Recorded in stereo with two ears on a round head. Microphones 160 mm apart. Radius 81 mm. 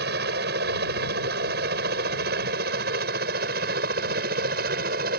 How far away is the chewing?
I don't hear chewing.